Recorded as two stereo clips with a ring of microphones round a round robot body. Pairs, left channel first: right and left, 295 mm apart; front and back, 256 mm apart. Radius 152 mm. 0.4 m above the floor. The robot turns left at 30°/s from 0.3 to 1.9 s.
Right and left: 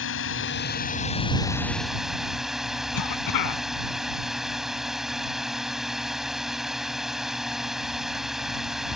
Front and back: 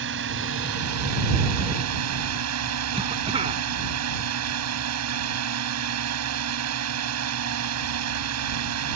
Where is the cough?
110° right.